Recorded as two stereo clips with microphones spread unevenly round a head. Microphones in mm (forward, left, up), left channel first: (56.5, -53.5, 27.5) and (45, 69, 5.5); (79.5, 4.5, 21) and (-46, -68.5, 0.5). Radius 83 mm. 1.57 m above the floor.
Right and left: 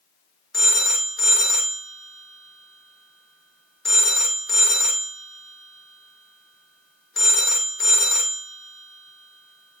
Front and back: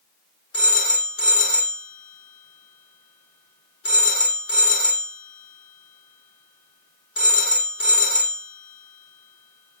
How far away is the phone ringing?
About 0.8 m.